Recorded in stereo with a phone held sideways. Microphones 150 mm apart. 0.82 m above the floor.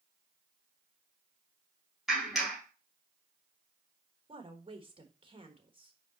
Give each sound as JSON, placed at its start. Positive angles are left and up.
{"t": 2.1, "sound": "a clap", "side_deg": 0, "distance_m": 4.0}
{"t": 4.3, "sound": "a woman speaking", "side_deg": -35, "distance_m": 1.2}